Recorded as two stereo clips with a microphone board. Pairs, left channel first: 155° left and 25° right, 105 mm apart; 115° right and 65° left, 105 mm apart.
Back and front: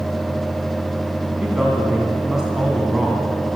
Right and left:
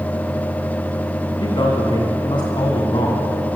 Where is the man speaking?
105° right, 2.0 m.